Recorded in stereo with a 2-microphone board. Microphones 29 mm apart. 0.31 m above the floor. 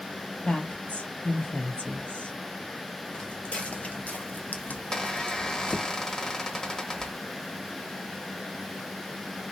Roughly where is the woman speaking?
Left.